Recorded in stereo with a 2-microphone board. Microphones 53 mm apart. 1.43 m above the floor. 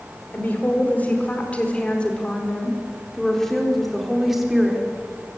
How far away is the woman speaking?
About 5 m.